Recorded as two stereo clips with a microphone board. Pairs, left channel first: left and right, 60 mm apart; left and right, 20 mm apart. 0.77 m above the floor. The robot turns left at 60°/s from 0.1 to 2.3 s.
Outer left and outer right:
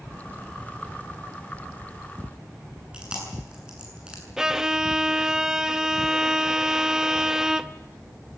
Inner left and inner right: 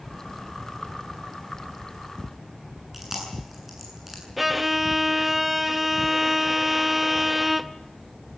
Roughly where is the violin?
Centre.